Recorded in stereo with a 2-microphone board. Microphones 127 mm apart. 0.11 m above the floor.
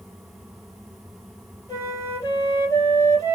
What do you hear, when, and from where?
1.7 s a flute: 25° left (ahead or behind), 2.5 m